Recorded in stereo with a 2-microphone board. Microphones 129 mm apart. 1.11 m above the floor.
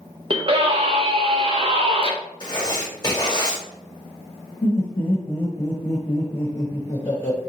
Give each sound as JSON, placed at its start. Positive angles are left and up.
{"t": 0.3, "sound": "a scream", "side_deg": -45, "distance_m": 1.0}
{"t": 2.4, "sound": "writing", "side_deg": 35, "distance_m": 1.1}
{"t": 4.6, "sound": "laughter", "side_deg": 45, "distance_m": 1.1}